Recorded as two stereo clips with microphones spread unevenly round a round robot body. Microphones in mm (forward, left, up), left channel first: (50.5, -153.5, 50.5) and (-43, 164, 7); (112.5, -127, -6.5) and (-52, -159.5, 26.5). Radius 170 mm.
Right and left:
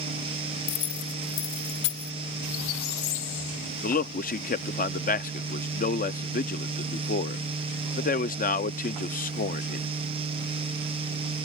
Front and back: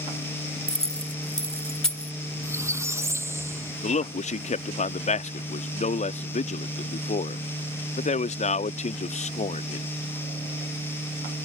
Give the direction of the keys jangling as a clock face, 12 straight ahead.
2 o'clock.